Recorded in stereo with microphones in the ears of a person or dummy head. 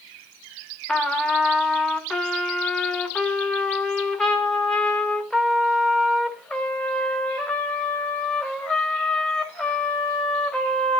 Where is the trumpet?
5° left (ahead or behind), 1.8 m.